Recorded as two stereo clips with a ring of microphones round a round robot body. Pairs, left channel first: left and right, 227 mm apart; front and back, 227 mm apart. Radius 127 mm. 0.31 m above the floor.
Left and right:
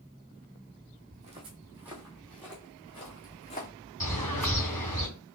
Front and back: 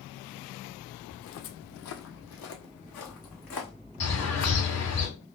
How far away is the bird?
About 2.5 m.